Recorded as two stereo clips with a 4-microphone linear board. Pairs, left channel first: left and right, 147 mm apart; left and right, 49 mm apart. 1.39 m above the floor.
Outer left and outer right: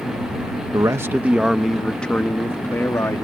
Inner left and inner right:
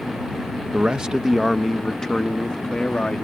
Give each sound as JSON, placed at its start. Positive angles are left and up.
{"t": 0.7, "sound": "a man speaking", "side_deg": -25}